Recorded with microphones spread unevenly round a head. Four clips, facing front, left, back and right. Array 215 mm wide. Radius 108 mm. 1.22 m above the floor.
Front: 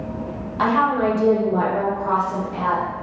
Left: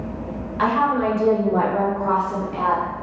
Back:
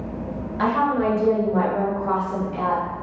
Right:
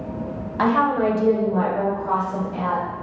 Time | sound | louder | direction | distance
0.6 | a woman speaking | even, front 2 dB | 90° right | 1.0 m